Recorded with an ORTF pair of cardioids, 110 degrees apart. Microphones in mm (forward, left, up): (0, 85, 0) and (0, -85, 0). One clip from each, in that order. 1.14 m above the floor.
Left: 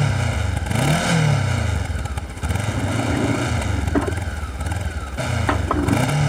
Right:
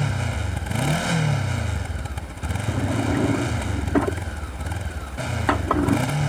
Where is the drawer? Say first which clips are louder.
Left 1 dB; 5° left.